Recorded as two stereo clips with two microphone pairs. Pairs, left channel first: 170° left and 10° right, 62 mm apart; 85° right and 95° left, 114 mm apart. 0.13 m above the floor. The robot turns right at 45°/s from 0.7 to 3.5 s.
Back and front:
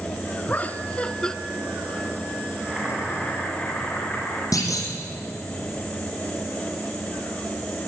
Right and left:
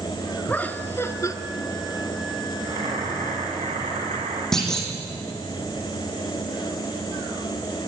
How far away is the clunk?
About 5 m.